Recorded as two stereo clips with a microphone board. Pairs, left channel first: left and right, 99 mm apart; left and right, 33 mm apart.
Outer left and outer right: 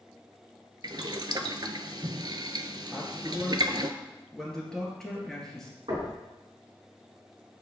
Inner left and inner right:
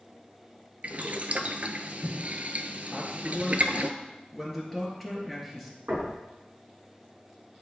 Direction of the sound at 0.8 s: 50° right (ahead or behind).